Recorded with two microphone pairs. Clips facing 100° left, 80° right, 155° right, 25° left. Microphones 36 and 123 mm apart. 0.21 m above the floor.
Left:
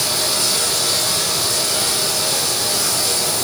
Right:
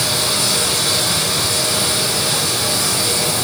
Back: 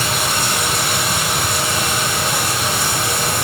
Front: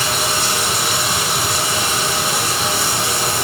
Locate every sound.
0.0 s running water: 35° right, 3 m